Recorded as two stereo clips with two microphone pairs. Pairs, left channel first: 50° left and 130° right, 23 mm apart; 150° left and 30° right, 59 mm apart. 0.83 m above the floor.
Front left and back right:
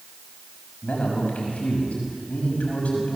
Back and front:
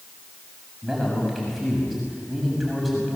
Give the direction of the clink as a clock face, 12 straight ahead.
No clink in this recording.